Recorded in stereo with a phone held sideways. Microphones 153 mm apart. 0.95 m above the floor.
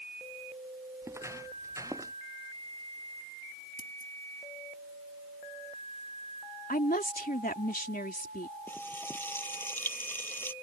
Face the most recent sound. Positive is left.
turn(degrees=15)  # may be behind; listen again after turning